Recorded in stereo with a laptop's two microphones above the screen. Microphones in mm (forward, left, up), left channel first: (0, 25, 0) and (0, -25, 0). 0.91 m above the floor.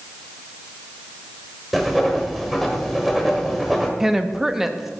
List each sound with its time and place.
1.7 s writing: centre (ahead or behind), 0.9 m
4.0 s a woman speaking: 10° right (ahead or behind), 0.8 m